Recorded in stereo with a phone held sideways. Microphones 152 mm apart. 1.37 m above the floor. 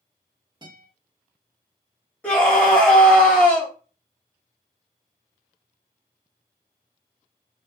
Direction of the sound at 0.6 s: 30° right (ahead or behind).